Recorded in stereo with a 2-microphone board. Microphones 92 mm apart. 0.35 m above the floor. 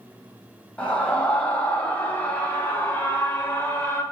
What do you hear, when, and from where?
0.8 s a scream: 15° left (ahead or behind), 2.5 m; by 4.0 s 25° left (ahead or behind), 1.5 m